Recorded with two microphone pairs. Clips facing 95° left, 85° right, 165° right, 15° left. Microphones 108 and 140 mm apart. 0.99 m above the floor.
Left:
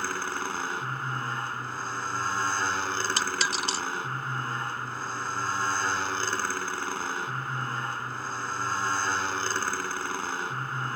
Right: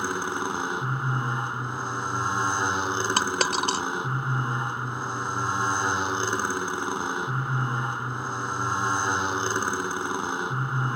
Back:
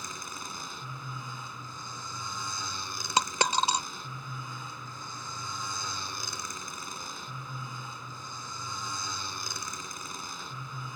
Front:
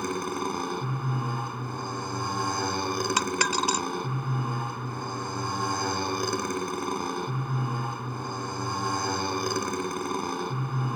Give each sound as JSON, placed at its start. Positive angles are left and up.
{"t": 0.0, "sound": "a motorcycle", "azimuth_deg": -10}
{"t": 3.2, "sound": "a dropped coin", "azimuth_deg": -110}